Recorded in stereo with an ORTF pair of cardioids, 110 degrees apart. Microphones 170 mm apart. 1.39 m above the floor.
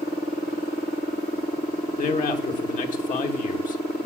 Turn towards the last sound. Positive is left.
turn(degrees=50)